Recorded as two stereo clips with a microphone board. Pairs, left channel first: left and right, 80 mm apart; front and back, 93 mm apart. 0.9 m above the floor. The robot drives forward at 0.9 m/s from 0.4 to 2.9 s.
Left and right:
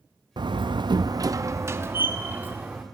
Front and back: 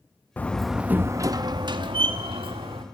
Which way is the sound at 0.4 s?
70° right.